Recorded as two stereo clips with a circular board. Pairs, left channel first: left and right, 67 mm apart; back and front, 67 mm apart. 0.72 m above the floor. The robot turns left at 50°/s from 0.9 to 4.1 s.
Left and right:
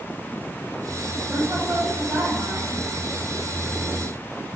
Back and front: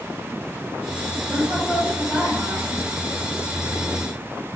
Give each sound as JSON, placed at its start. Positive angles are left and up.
{"t": 1.3, "sound": "a woman speaking", "azimuth_deg": -35, "distance_m": 1.4}